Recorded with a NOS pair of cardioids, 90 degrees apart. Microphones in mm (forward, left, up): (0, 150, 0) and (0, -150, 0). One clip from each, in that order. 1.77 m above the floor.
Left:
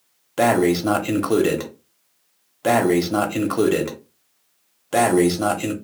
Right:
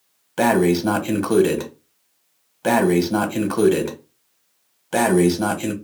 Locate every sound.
0.4 s breathing: straight ahead, 0.6 m